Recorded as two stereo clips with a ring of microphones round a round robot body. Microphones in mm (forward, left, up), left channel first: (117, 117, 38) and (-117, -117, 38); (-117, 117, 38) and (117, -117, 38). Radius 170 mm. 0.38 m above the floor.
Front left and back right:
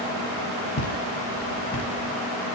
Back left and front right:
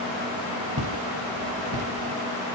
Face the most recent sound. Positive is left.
turn(degrees=-15)